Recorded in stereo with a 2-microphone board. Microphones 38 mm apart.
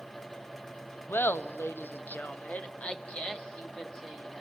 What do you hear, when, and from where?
1.1 s laughter: 80° left, 0.9 m; by 4.4 s 10° left (ahead or behind), 2 m